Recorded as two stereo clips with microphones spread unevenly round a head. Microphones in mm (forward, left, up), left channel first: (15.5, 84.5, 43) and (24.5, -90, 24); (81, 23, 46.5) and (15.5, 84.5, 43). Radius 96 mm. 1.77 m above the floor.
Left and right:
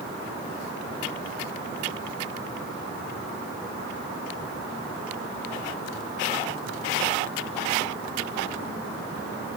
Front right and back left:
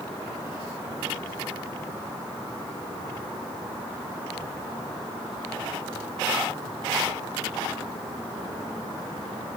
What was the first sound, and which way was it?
Only background noise.